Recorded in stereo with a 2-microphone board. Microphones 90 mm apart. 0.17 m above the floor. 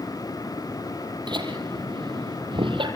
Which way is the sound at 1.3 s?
60° right (ahead or behind).